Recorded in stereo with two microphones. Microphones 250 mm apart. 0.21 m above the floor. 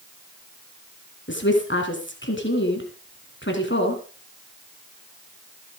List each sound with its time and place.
1.3 s a woman speaking: 50° left (ahead or behind), 2.5 m